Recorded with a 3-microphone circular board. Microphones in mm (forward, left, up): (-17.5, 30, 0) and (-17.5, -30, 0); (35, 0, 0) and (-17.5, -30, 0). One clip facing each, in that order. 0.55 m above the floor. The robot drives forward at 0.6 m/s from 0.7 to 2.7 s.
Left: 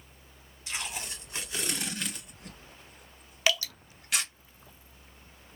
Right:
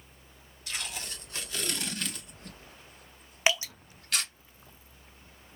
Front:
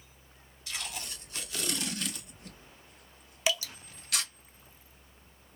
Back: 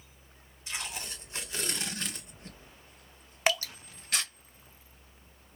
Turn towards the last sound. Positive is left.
turn(degrees=-150)